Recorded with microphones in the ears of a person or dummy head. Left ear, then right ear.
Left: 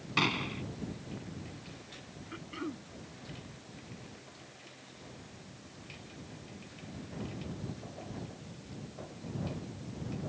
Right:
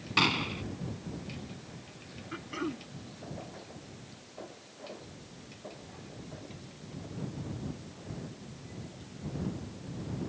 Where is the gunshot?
10° right (ahead or behind).